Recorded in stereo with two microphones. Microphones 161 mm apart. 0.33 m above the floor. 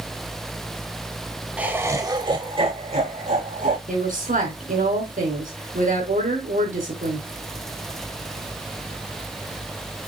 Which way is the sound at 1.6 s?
10° right (ahead or behind).